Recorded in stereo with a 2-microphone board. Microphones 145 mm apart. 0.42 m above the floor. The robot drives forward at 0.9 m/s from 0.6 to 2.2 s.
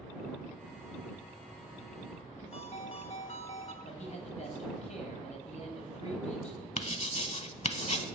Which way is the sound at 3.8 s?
55° left (ahead or behind).